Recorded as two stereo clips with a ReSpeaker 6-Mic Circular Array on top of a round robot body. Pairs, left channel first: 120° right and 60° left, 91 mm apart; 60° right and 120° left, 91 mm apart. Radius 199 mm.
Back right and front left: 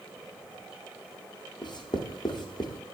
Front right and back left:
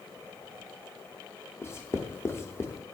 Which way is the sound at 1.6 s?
115° right.